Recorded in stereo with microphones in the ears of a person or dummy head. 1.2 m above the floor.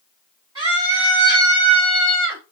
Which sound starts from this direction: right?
A scream, at 0.6 s.